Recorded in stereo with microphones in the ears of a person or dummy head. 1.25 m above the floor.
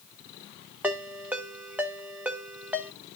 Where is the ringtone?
10° right (ahead or behind), 0.7 m.